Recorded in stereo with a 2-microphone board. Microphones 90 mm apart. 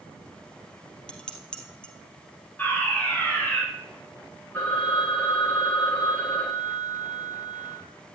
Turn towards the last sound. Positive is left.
turn(degrees=15)  # may be behind; listen again after turning